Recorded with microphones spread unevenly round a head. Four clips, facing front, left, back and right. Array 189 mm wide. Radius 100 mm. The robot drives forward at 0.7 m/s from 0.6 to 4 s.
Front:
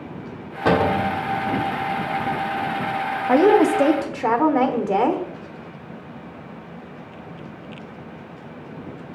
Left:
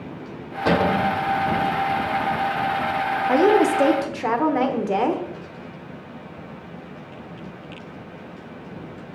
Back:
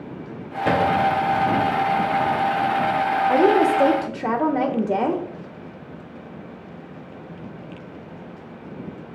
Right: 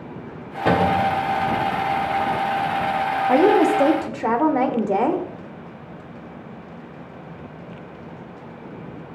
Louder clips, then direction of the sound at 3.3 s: Right 1 dB, front 3 dB; 175° left.